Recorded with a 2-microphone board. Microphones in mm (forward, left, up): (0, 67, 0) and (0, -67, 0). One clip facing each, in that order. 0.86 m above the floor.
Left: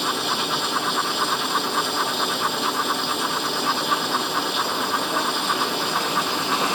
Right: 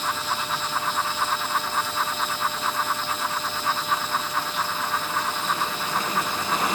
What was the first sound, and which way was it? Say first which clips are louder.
Running water: left 3 dB; 75° left (ahead or behind).